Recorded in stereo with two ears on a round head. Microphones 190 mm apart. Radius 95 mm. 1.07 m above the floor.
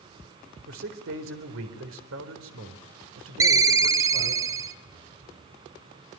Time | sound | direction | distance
0.7 | a man speaking | 70° right (ahead or behind) | 4 m
3.4 | a ringtone | 15° right (ahead or behind) | 1.0 m